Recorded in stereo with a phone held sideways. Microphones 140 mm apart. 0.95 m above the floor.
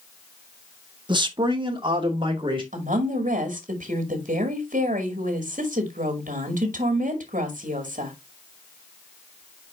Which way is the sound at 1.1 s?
35° right (ahead or behind).